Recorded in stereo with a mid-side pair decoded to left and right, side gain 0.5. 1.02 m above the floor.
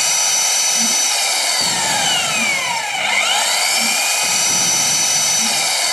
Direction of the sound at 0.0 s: 5° left.